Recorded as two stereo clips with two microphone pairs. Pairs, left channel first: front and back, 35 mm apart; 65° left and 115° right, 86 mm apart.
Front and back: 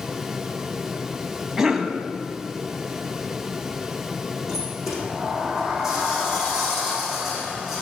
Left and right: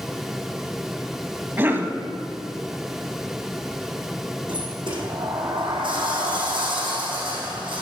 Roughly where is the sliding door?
Right.